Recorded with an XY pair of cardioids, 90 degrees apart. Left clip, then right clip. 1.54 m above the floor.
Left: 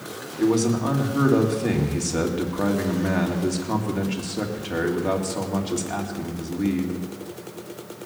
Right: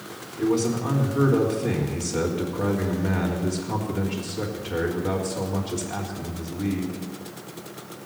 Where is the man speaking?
55° left, 3.5 m.